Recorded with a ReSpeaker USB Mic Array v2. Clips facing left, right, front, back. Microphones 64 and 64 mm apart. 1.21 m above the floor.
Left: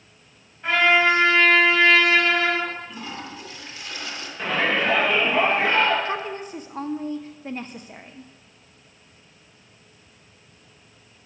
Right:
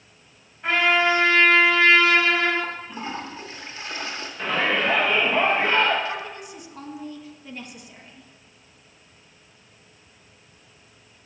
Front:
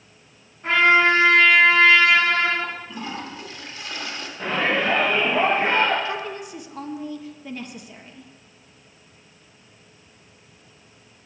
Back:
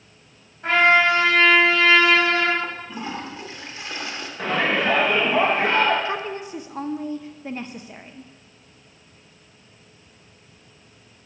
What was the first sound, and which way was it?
A trumpet, 175° right.